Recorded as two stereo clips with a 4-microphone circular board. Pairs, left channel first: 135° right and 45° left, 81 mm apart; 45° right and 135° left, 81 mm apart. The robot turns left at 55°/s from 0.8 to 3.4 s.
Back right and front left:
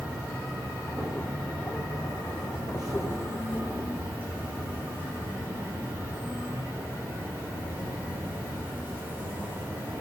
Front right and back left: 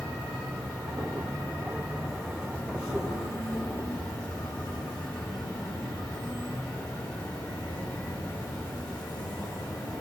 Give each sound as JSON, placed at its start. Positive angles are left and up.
{"t": 0.0, "sound": "an insect", "azimuth_deg": 120, "distance_m": 1.2}